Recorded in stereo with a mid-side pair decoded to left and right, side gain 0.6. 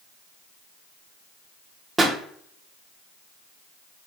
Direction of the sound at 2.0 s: 30° right.